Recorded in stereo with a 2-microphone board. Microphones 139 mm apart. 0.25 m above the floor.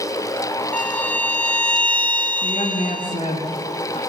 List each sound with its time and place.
0.7 s a violin: 10° left (ahead or behind), 1.3 m
2.4 s a woman speaking: 50° left (ahead or behind), 2.5 m